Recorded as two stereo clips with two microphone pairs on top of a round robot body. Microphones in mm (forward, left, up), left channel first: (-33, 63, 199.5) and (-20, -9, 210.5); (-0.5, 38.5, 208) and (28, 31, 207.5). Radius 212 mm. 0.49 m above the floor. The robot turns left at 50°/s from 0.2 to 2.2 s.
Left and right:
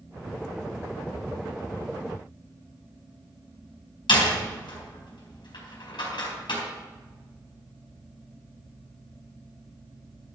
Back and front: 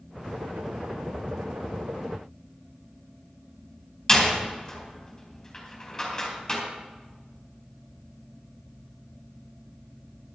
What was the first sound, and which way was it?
A door slam, 95° left.